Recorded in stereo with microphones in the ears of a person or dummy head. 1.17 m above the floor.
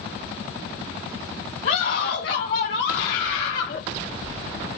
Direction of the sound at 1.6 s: 45° left (ahead or behind).